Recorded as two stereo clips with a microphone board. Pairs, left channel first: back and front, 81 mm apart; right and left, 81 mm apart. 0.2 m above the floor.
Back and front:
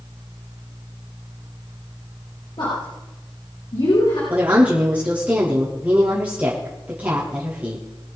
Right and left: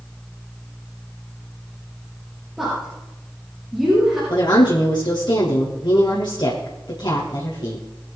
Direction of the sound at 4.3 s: 70° right.